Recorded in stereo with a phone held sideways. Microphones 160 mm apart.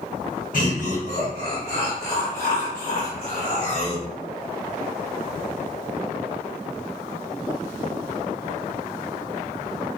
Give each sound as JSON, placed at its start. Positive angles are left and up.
{"t": 0.5, "sound": "laughter", "side_deg": 75, "distance_m": 2.0}